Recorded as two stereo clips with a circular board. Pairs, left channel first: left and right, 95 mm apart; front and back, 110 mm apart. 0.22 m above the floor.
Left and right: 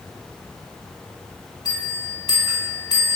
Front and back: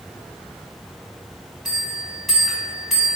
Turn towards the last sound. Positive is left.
turn(degrees=90)